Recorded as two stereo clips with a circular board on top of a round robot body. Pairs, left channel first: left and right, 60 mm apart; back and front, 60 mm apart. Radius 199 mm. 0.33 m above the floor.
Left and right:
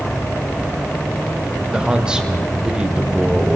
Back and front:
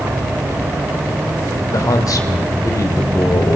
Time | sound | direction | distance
1.7 | a man speaking | 165° right | 3 m